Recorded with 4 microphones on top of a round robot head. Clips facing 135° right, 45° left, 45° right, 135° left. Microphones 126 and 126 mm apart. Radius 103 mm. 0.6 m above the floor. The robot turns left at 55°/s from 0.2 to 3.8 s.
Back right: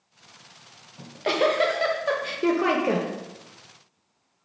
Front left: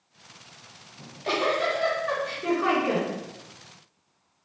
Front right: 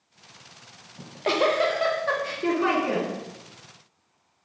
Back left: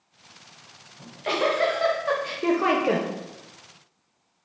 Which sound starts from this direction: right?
A giggle, at 1.0 s.